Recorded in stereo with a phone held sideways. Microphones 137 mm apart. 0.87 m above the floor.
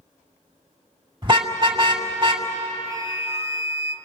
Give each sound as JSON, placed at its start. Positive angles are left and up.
{"t": 1.2, "sound": "a car horn", "side_deg": -35, "distance_m": 2.0}
{"t": 2.9, "sound": "a flute", "side_deg": -20, "distance_m": 1.0}